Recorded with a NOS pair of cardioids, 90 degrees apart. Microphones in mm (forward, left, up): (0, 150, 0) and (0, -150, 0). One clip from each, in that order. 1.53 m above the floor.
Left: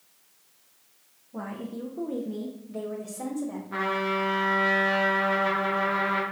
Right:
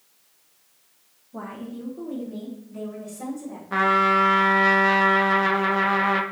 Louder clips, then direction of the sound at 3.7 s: Right 9 dB; 45° right.